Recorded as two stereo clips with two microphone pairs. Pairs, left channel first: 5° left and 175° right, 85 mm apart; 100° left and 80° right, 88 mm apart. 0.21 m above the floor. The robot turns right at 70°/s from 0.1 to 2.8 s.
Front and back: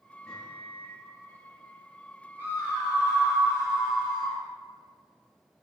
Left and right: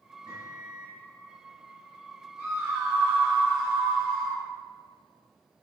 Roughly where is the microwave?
Left.